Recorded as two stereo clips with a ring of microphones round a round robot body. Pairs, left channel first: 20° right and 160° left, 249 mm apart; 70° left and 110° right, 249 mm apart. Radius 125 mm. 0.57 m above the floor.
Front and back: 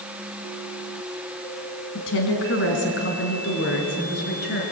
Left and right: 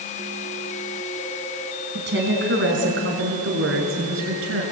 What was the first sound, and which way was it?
A woman speaking, 65° right.